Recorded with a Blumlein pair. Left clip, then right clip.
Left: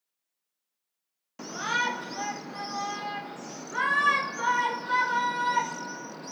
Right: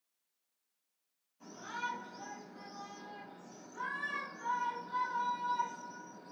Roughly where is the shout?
Ahead left.